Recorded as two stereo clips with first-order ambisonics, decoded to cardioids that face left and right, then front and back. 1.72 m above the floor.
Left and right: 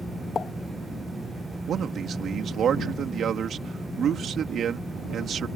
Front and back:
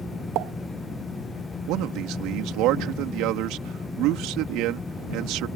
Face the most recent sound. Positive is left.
turn(degrees=-150)